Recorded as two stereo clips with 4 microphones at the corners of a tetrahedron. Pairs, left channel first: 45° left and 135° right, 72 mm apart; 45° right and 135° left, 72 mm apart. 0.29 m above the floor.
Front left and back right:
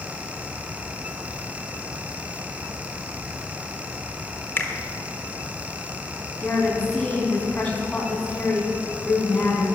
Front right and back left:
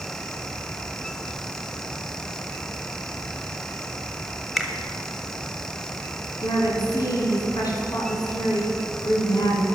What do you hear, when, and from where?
4.6 s a finger snap: 50° left, 1.5 m
6.4 s a woman speaking: 25° right, 3.5 m